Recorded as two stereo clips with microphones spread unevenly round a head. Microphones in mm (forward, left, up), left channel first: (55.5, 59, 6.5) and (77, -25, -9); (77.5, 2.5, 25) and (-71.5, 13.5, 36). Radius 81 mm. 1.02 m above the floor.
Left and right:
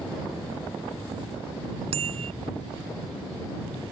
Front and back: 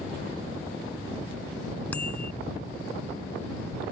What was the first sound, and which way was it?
A bicycle bell, 85° right.